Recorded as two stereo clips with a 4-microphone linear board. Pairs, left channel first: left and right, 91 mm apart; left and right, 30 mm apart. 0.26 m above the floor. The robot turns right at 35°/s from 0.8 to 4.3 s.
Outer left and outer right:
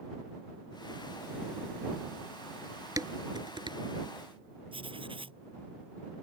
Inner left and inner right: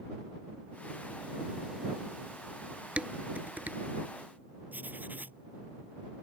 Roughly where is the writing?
Right.